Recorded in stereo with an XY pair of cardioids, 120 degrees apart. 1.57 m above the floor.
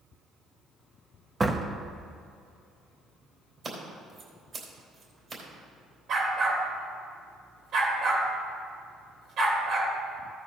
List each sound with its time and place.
1.4 s a door slam: 25° right, 1.0 m
3.6 s scissors: 40° right, 4 m
6.1 s a dog barking: 60° right, 3 m